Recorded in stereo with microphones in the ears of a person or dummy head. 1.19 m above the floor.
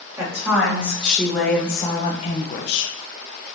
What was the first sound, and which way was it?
A woman speaking, 15° right (ahead or behind).